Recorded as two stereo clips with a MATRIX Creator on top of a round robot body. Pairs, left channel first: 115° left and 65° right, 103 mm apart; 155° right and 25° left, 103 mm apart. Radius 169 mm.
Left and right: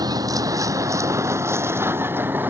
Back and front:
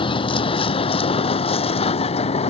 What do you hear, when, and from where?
0.0 s a vehicle: 120° right; by 2.5 s 140° right